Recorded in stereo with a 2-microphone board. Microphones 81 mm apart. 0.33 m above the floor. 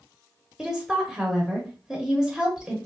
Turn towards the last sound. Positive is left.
turn(degrees=-10)  # may be behind; listen again after turning